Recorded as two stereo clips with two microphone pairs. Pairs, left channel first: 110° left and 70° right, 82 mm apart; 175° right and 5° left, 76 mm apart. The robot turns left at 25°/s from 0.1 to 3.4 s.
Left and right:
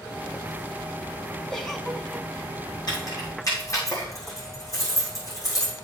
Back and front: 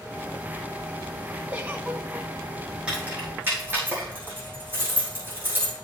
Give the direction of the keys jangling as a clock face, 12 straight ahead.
9 o'clock.